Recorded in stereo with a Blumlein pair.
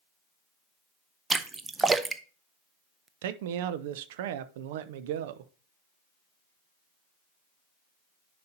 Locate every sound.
1.3 s a splash: 15° right, 0.6 m
3.2 s a man speaking: 50° right, 0.7 m